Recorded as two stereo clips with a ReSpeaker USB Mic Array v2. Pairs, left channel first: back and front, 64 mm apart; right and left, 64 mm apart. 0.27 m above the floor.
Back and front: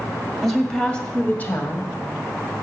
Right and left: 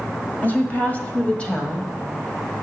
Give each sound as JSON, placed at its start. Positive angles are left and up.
{"t": 0.4, "sound": "a woman speaking", "azimuth_deg": -90, "distance_m": 1.5}